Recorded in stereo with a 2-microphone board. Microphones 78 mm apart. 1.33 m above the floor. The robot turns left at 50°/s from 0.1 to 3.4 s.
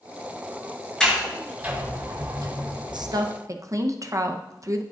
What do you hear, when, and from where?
1.0 s a sliding door: 5° left (ahead or behind), 3.5 m; by 3.1 s 70° right (ahead or behind), 3.5 m
2.9 s a woman speaking: 65° right (ahead or behind), 0.9 m; by 4.8 s 40° right (ahead or behind), 0.9 m